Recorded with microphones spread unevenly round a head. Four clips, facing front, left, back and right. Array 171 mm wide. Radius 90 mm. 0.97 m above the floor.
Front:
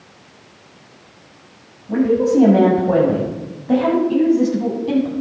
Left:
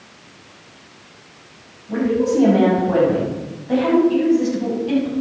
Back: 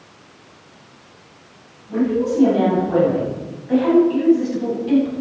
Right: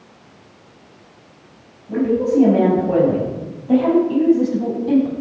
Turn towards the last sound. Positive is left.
turn(degrees=-40)